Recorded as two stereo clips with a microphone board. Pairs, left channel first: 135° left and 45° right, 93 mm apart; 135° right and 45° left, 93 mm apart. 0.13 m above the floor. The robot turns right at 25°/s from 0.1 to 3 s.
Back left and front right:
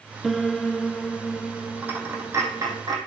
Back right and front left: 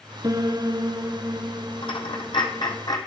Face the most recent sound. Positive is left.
turn(degrees=-85)